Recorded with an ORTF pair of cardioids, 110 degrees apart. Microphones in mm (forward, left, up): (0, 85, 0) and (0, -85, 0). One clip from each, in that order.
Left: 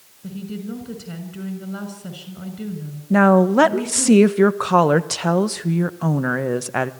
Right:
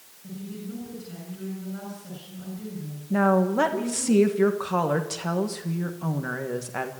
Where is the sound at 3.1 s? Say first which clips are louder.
Left 7 dB; 50° left, 1.4 m.